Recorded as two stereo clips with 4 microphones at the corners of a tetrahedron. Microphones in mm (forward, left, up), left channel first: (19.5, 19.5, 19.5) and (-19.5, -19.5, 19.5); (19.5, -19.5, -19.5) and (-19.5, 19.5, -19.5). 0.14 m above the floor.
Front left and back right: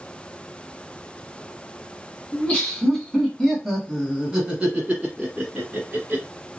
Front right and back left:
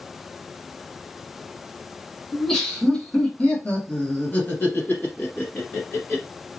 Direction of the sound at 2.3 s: 30° left.